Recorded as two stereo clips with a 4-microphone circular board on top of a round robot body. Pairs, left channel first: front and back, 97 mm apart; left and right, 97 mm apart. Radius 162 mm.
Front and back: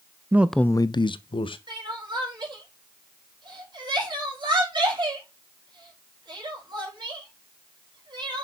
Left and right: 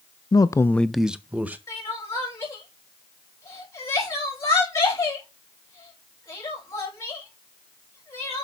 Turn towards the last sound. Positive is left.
turn(degrees=145)